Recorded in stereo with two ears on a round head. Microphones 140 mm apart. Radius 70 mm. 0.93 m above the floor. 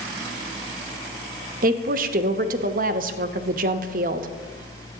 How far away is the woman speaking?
About 0.8 m.